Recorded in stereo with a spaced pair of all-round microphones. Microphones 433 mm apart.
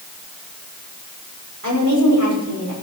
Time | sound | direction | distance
1.6 | a woman speaking | 45° right (ahead or behind) | 5 m